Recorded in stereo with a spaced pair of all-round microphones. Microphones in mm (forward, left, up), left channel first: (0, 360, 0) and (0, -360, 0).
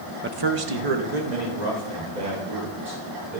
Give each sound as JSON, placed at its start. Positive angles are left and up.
{"t": 0.2, "sound": "a man speaking", "side_deg": -15, "distance_m": 0.6}